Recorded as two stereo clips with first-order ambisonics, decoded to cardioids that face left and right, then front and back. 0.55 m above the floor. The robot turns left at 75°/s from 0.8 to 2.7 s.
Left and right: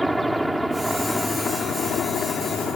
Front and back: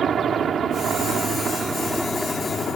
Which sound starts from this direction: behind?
A helicopter, at 0.0 s.